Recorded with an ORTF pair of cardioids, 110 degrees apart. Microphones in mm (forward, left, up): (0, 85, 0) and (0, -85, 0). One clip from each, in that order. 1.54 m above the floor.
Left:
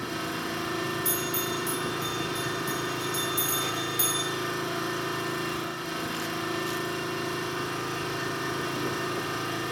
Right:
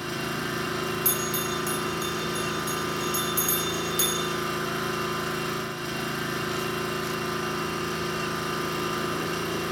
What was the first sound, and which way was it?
An engine running, 30° right.